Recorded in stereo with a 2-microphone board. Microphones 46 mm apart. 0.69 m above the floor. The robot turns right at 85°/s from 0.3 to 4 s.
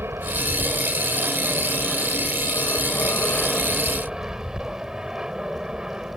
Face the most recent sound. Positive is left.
turn(degrees=-165)